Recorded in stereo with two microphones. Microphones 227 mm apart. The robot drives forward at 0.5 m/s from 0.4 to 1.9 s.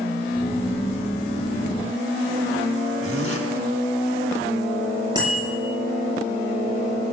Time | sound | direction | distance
3.0 | a zipper | 75° right (ahead or behind) | 3.5 m
5.2 | a bicycle bell | 20° right (ahead or behind) | 10 m